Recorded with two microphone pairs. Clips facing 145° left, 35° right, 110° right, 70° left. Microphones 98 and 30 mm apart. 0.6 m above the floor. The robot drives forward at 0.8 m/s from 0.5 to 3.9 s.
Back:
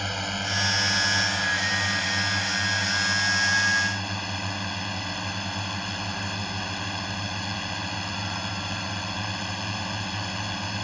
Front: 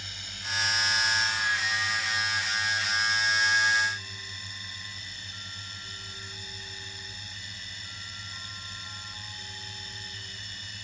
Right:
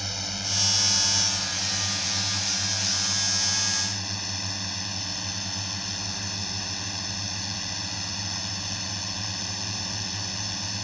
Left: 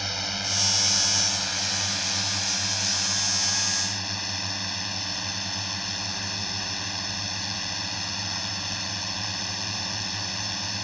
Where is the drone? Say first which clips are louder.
Back 14 dB, left 3 dB; 145° left; by 10.8 s 150° left.